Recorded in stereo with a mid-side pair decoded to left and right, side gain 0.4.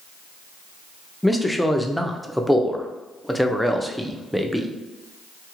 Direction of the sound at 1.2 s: Straight ahead.